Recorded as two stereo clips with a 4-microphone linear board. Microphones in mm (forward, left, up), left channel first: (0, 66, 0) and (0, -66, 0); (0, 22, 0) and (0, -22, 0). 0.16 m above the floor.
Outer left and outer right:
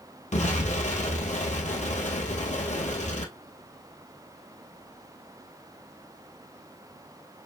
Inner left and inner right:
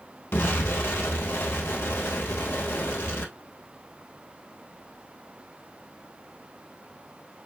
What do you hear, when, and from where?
0.3 s an explosion: 65° left (ahead or behind), 1.7 m